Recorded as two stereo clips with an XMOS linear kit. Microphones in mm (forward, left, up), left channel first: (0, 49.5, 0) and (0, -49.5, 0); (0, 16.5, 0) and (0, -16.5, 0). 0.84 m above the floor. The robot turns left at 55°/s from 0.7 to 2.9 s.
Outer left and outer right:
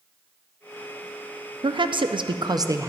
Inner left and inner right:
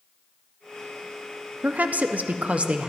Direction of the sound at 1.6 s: 75° right.